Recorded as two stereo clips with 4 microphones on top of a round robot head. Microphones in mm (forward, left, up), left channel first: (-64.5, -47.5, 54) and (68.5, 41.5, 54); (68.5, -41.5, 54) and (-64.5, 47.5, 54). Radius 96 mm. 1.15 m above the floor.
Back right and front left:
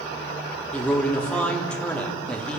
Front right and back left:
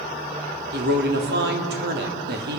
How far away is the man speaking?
About 3 m.